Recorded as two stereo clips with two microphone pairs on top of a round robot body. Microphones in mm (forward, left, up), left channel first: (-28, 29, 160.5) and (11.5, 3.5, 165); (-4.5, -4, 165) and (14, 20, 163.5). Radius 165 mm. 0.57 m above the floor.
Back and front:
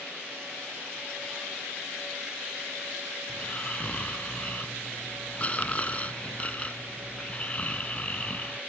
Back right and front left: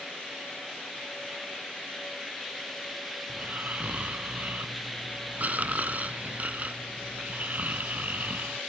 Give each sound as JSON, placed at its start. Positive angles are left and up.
{"t": 3.3, "sound": "snoring", "azimuth_deg": 90}